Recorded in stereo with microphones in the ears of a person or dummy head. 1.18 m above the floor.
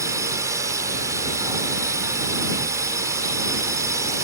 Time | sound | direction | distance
0.0 | a drone | 10° right (ahead or behind) | ?